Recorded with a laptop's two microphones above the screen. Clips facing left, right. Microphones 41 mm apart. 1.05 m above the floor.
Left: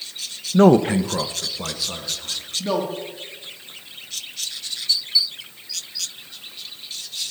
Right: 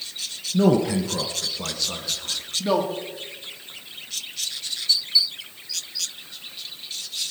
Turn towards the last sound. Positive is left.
turn(degrees=-5)  # may be behind; listen again after turning